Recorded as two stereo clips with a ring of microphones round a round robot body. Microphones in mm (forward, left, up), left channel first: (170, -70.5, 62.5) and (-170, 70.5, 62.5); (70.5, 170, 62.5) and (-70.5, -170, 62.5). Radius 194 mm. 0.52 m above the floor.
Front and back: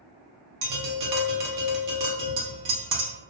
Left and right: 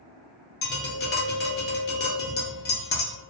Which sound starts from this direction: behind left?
Tapping, at 0.6 s.